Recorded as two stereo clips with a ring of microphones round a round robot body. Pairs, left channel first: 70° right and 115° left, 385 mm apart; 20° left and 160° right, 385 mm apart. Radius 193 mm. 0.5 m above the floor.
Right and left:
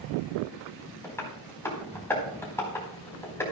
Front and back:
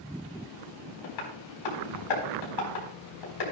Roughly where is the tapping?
Ahead.